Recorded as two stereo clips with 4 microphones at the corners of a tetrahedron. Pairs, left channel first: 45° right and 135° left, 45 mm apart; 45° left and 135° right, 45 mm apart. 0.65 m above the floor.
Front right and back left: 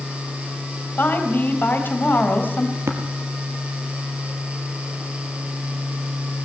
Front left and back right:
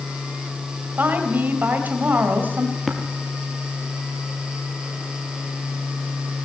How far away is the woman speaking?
About 3 m.